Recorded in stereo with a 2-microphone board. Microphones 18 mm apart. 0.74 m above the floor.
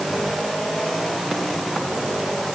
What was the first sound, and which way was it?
Only background noise.